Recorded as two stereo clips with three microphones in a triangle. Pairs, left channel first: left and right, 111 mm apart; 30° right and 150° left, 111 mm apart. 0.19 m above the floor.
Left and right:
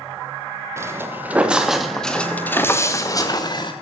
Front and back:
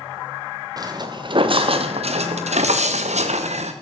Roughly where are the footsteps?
Behind right.